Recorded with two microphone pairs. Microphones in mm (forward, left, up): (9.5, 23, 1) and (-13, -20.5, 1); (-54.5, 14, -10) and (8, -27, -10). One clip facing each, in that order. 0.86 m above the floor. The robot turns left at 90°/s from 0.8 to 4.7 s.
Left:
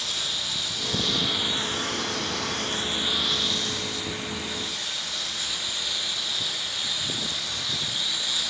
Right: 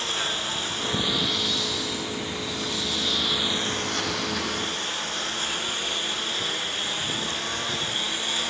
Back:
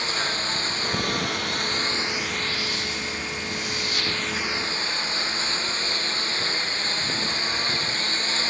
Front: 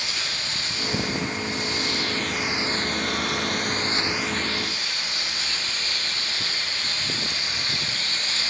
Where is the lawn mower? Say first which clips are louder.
Right 4 dB, back 5 dB; 165° right; by 8.5 s 160° right.